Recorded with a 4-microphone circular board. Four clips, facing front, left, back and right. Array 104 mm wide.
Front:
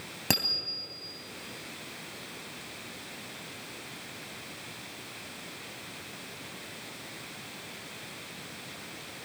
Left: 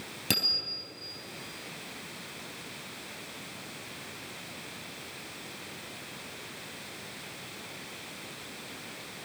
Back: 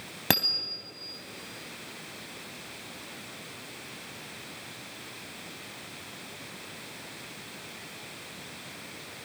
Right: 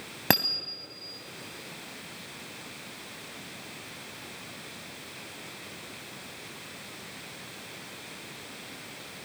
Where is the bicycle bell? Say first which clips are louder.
Right 8 dB, back 4 dB; 110° right, 3 m.